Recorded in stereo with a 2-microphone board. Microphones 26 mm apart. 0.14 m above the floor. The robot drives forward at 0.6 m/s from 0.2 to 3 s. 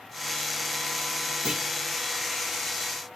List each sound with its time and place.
1.4 s a clunk: 30° right (ahead or behind), 4.5 m